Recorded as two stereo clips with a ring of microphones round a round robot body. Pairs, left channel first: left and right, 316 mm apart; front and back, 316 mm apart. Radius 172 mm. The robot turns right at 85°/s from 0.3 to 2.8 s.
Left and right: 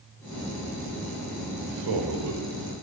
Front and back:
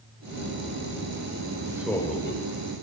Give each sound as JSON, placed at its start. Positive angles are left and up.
{"t": 1.7, "sound": "a man speaking", "azimuth_deg": -105, "distance_m": 3.0}